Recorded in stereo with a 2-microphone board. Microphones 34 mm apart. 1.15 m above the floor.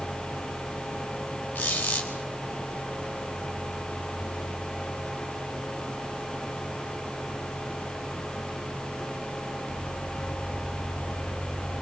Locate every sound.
1.6 s a squeak: 85° left, 3.5 m